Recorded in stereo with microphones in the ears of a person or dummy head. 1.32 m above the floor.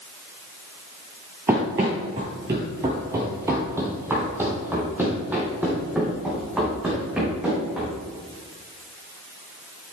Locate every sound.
1.5 s running footsteps: 15° right (ahead or behind), 1.4 m; by 8.0 s 5° right (ahead or behind), 4.5 m